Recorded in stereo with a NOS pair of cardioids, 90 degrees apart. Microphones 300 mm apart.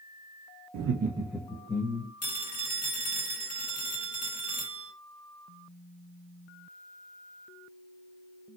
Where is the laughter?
60° right, 0.7 m; by 2.1 s 20° left, 1.8 m.